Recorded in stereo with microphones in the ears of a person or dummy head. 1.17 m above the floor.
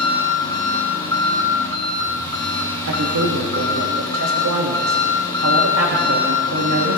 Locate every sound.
0.0 s an engine running: 20° left (ahead or behind), 1.7 m
2.9 s a man speaking: 75° right (ahead or behind), 1.4 m